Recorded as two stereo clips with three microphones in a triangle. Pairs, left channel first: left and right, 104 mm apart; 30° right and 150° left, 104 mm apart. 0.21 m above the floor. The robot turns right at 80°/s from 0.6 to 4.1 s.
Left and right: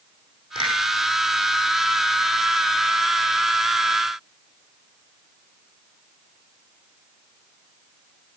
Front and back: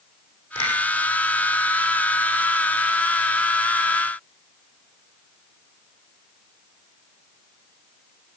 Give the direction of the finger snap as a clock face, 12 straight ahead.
2 o'clock.